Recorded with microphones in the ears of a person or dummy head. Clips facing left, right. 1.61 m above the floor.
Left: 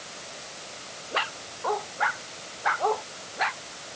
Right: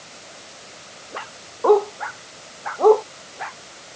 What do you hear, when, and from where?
1.6 s a dog barking: 70° right (ahead or behind); by 3.0 s 65° right (ahead or behind)